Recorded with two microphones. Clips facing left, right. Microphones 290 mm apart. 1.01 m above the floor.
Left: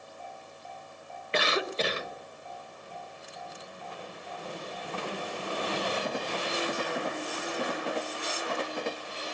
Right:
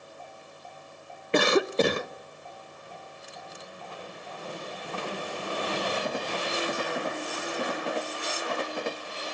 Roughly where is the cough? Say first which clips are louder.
Right 8 dB; right.